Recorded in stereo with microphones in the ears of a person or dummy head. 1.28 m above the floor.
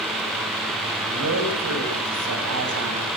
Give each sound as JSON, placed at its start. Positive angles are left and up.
{"t": 1.0, "sound": "a man speaking", "side_deg": -80, "distance_m": 7.0}